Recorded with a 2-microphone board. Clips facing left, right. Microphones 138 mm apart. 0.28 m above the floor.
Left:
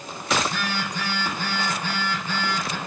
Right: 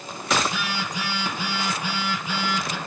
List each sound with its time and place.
0.4 s a phone buzzing: 10° right (ahead or behind), 2.5 m